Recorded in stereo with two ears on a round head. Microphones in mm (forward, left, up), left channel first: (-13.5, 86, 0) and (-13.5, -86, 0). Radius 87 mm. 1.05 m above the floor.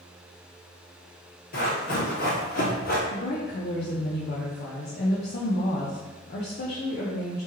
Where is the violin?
No violin in this recording.